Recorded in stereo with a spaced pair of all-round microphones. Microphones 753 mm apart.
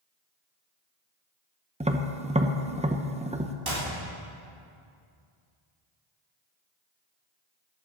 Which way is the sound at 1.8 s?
10° right (ahead or behind).